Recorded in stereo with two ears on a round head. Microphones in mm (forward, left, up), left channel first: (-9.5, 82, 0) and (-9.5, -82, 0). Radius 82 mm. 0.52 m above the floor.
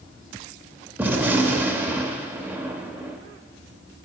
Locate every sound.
1.0 s a gunshot: 10° right (ahead or behind), 0.5 m